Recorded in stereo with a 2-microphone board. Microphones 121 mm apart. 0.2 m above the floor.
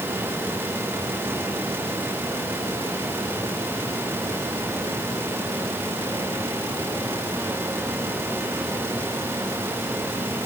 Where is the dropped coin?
No dropped coin in this recording.